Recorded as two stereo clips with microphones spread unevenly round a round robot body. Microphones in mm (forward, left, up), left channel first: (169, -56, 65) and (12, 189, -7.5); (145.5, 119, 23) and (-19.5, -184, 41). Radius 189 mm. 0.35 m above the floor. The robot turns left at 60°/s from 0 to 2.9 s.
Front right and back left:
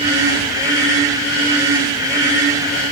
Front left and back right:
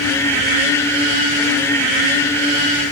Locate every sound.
Only background noise.